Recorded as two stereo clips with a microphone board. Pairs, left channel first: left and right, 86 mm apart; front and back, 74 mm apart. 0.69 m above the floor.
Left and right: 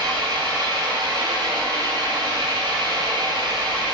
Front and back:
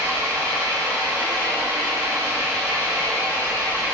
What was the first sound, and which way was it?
An engine running, 120° right.